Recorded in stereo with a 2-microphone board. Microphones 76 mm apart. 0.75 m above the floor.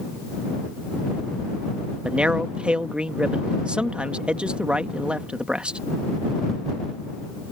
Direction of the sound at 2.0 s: 15° right (ahead or behind).